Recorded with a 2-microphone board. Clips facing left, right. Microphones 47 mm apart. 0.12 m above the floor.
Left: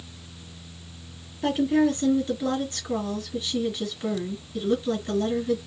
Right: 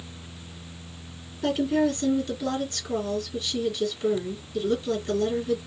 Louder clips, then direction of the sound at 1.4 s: Left 2 dB; 25° left (ahead or behind).